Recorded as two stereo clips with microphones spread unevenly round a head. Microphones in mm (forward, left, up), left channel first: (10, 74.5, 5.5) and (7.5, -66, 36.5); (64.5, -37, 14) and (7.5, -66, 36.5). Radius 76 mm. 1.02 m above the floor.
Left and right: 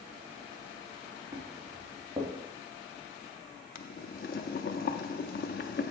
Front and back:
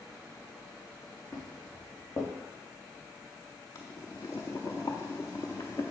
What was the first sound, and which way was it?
Footsteps, 20° right.